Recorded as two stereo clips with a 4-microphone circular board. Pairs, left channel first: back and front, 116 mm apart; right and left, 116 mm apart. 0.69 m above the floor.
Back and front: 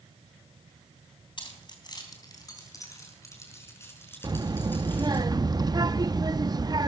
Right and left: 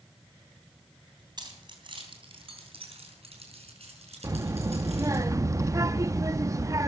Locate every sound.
1.4 s keys jangling: 135° left, 3 m; by 5.2 s 105° left, 6.5 m
4.2 s a child speaking: 35° left, 0.5 m